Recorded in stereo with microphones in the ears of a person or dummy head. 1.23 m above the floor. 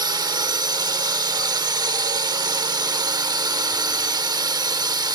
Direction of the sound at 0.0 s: 20° right (ahead or behind).